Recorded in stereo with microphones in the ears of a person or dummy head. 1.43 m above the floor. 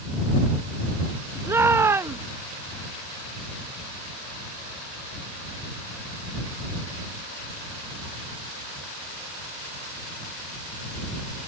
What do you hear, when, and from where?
1.5 s a shout: 10° right (ahead or behind)